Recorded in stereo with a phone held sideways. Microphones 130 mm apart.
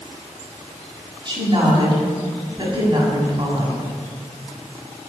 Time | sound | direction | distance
1.2 | a woman speaking | 35° right (ahead or behind) | 7 m